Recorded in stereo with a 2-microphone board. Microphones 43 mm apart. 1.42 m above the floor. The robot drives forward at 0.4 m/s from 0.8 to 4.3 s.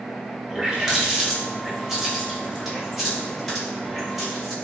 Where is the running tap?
20° right (ahead or behind), 0.7 m; by 4.5 s 5° right (ahead or behind), 2.0 m.